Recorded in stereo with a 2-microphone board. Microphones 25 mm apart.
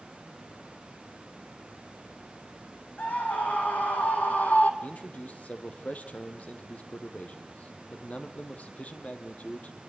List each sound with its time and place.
3.0 s a scream: 70° left (ahead or behind), 5.5 m
4.8 s a man speaking: 60° left (ahead or behind), 3 m